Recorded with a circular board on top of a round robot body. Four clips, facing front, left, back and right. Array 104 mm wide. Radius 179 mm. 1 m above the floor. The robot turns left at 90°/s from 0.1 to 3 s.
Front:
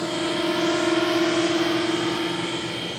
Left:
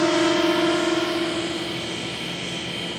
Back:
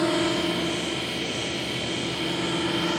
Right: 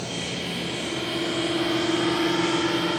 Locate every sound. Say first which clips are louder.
0.0 s a drone: left 13 dB, back 1 dB; 100° left; by 3.0 s 130° right